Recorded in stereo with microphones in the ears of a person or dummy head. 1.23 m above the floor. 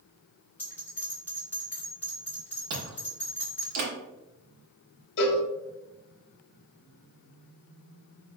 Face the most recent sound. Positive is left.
turn(degrees=60)  # may be behind; listen again after turning